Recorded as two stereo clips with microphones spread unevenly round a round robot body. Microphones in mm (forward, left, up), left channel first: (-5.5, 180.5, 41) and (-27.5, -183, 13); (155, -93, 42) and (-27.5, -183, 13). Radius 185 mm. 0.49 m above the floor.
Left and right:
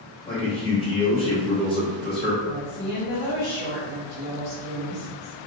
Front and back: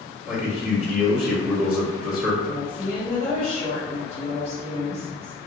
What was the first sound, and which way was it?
A man speaking, 150° left.